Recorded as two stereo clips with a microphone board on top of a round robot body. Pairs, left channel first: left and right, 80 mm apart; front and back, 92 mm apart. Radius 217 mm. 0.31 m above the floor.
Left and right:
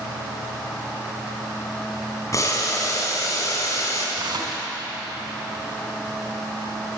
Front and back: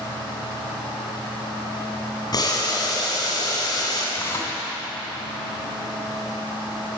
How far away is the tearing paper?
About 2 m.